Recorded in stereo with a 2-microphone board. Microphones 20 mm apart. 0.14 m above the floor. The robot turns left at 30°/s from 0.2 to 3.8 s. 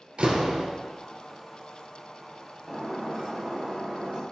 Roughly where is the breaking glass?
Ahead.